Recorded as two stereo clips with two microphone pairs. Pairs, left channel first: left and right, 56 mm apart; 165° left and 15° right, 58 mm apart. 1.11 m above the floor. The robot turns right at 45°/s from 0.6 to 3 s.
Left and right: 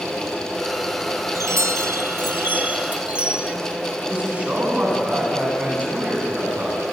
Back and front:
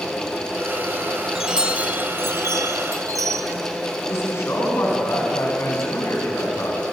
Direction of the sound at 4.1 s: 155° right.